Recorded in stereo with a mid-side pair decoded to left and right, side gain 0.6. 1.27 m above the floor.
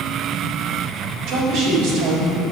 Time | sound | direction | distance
1.3 | a woman speaking | 60° right | 2.5 m